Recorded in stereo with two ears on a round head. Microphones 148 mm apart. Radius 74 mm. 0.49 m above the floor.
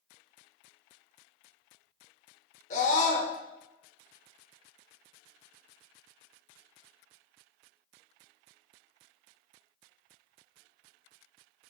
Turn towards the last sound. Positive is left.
turn(degrees=45)  # may be behind; listen again after turning